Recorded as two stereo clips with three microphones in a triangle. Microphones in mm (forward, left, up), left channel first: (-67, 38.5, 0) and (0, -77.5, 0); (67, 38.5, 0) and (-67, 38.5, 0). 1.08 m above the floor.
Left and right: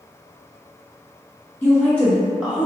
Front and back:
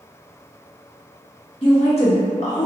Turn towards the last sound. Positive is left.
turn(degrees=15)